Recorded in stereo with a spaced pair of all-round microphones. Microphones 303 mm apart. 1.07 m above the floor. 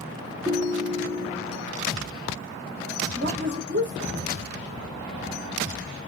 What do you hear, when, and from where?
0.5 s a ringtone: 10° right (ahead or behind), 0.6 m
3.1 s a woman speaking: 35° right (ahead or behind), 1.4 m